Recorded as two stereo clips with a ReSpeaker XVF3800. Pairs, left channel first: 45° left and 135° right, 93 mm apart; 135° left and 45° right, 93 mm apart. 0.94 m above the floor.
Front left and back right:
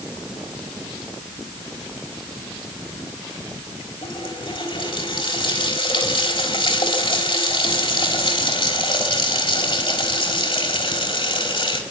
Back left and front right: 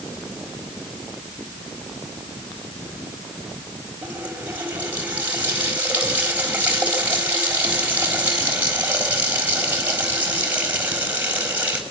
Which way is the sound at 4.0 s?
25° left.